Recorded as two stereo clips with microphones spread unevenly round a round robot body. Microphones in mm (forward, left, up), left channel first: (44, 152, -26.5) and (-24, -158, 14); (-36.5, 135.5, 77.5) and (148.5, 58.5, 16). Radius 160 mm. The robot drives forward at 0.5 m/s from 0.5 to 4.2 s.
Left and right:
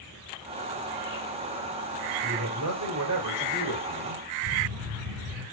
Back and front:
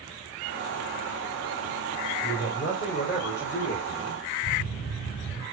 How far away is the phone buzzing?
About 4 m.